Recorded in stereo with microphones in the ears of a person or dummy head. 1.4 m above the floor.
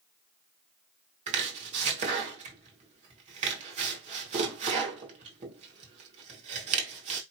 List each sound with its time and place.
1.3 s chopping: 35° right (ahead or behind), 1.5 m